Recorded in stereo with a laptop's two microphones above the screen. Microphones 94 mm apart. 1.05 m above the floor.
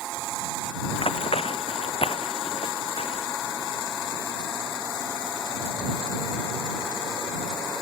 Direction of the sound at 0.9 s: 75° left (ahead or behind).